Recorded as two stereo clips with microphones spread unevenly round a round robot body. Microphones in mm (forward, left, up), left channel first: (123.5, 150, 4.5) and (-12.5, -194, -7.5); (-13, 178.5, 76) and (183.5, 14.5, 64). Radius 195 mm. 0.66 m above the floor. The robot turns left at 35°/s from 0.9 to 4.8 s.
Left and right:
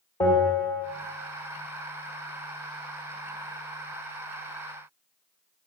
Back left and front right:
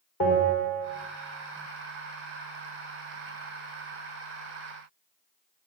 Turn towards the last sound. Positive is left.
turn(degrees=15)